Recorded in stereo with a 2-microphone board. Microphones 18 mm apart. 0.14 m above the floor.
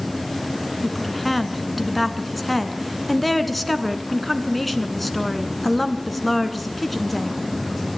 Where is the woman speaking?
5° left (ahead or behind), 1.3 m.